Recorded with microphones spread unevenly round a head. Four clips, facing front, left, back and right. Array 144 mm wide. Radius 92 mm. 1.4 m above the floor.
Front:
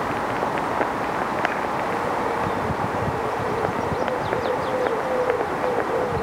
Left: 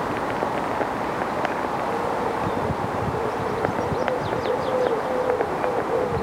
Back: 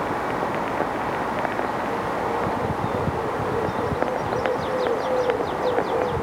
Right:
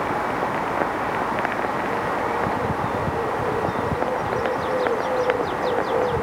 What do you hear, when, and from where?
Only background noise.